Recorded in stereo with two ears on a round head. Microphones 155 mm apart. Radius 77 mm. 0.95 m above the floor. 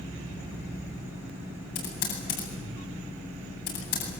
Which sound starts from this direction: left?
Typing on a keyboard, at 1.8 s.